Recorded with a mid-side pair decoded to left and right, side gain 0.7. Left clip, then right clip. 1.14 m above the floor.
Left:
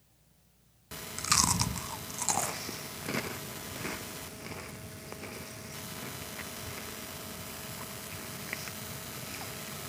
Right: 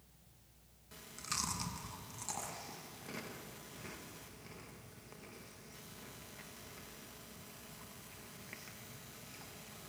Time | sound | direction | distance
0.9 | chewing | 50° left | 0.7 m